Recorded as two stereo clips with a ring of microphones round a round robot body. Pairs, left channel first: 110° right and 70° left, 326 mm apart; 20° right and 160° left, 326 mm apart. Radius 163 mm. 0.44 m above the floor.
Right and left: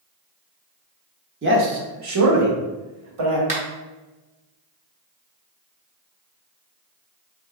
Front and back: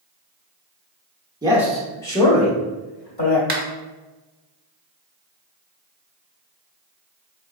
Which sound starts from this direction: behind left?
A finger snap, at 3.5 s.